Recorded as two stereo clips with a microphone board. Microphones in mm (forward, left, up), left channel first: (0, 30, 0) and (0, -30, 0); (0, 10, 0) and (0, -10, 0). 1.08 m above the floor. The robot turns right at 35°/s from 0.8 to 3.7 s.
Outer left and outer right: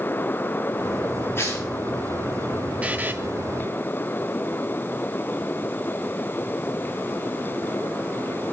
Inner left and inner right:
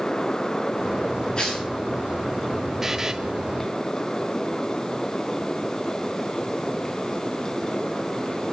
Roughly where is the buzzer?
Right.